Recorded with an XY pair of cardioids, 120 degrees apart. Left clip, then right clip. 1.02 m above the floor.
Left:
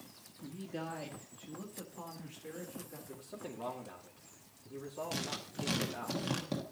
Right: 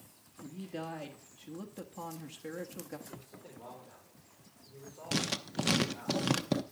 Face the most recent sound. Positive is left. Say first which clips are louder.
# right 5 dB
turn(degrees=-50)